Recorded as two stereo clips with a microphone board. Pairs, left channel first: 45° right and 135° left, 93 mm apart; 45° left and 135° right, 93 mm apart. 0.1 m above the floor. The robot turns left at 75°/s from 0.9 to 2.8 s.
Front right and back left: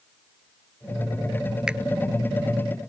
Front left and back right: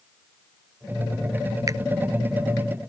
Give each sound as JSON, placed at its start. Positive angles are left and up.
{"t": 1.7, "sound": "a finger snap", "azimuth_deg": -150}